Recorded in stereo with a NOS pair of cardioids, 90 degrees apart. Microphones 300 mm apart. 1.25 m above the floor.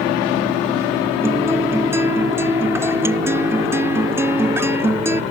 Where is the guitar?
10° right.